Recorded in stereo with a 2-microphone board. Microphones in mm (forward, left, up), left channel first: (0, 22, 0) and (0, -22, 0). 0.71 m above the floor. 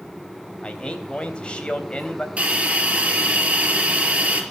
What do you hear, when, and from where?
0.6 s a man speaking: 20° left (ahead or behind), 3.5 m
2.4 s a hiss: 25° right (ahead or behind), 4 m